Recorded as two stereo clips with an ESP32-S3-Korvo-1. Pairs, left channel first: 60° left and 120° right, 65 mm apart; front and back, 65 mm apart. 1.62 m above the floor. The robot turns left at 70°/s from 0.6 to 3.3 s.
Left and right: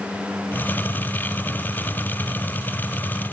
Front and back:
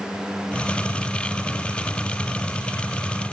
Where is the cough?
I don't hear a cough.